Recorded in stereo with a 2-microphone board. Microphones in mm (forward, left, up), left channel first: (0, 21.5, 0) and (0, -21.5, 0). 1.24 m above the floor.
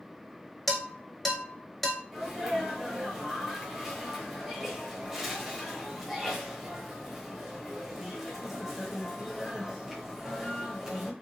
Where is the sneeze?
10° right (ahead or behind), 1.0 m.